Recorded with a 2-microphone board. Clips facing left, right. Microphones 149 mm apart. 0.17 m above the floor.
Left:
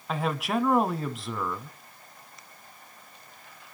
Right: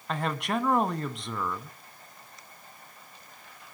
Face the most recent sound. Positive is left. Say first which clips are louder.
# left 2 dB
turn(degrees=5)  # may be behind; listen again after turning